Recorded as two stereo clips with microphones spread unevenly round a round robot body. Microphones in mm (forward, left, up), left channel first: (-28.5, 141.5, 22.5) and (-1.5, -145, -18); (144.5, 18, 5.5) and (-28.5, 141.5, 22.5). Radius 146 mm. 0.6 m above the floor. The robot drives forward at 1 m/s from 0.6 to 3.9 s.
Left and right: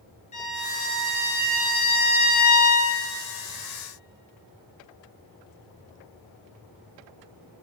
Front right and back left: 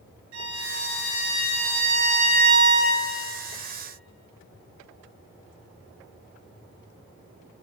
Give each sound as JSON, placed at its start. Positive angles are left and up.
{"t": 0.3, "sound": "a violin", "azimuth_deg": 160, "distance_m": 4.5}